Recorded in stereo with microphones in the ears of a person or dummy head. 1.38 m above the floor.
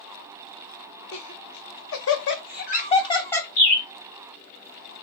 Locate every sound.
1.1 s laughter: 70° left (ahead or behind), 1.1 m; by 3.5 s 10° left (ahead or behind), 0.7 m
3.6 s a bird: 55° left (ahead or behind), 1.9 m